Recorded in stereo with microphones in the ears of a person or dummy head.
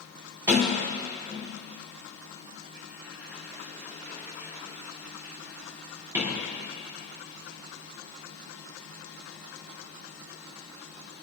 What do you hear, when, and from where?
0.5 s a sliding door: 15° right (ahead or behind), 4 m